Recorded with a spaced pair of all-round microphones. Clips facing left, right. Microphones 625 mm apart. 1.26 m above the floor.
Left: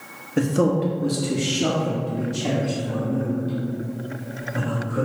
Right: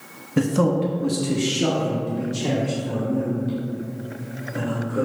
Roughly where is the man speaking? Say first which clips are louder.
Even; right.